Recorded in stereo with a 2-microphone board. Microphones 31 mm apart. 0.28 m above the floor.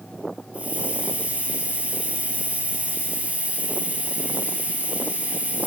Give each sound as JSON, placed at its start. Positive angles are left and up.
{"t": 0.5, "sound": "a hiss", "side_deg": -40, "distance_m": 5.5}